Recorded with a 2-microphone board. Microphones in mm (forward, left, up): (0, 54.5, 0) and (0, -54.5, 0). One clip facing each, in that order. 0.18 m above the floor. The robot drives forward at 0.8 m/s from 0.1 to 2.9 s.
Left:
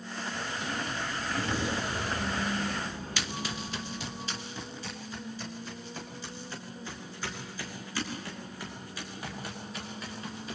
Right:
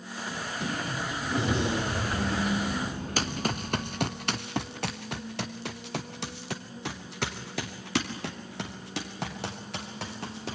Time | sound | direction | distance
0.3 | a sliding door | 60° right (ahead or behind) | 6 m
3.2 | running footsteps | 45° right (ahead or behind) | 1.1 m